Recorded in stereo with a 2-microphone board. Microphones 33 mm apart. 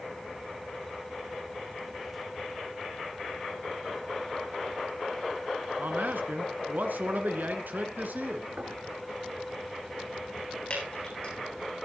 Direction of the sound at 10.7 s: 35° left (ahead or behind).